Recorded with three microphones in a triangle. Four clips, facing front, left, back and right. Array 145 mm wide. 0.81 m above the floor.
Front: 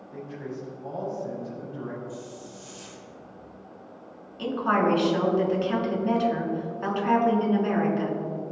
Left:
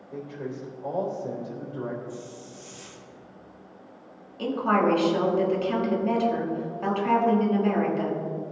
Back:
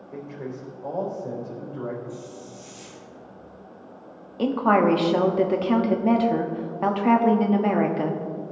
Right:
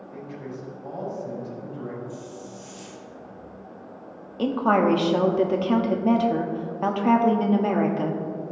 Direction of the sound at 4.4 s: 140° right.